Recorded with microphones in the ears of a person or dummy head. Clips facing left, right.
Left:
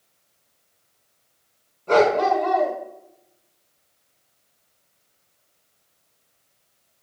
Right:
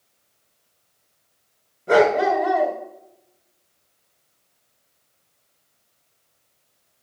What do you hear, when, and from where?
1.9 s a dog barking: 15° right (ahead or behind), 1.9 m